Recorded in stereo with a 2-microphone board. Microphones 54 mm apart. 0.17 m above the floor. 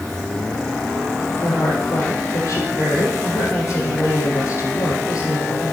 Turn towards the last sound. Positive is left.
turn(degrees=60)  # may be behind; listen again after turning